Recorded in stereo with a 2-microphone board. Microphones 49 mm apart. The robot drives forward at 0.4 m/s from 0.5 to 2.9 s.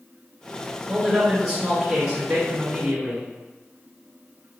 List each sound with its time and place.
0.9 s a man speaking: centre (ahead or behind), 1.2 m